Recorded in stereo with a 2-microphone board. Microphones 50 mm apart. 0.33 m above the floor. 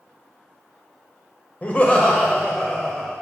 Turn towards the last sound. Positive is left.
turn(degrees=0)  # may be behind; listen again after turning